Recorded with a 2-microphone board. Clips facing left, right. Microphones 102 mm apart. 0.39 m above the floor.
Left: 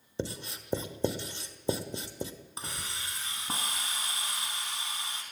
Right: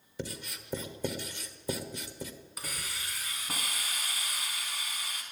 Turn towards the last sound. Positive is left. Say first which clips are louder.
# left 1 dB
turn(degrees=25)  # may be behind; listen again after turning